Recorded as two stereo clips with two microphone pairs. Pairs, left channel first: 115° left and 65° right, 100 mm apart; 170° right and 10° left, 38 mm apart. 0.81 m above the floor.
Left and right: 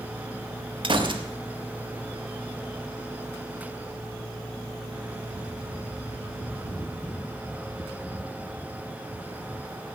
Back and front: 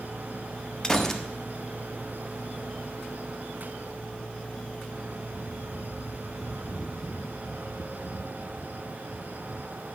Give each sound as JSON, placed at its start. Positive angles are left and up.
{"t": 0.8, "sound": "a gunshot", "azimuth_deg": -95, "distance_m": 1.2}